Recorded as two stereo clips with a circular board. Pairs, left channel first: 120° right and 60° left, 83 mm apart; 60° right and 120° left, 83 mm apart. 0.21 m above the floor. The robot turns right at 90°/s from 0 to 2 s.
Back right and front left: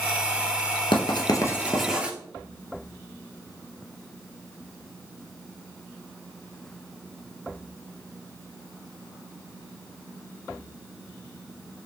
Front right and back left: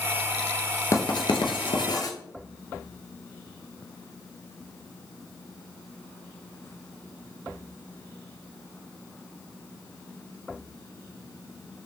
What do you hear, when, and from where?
0.9 s writing: 115° right, 0.6 m; by 2.1 s 15° right, 0.6 m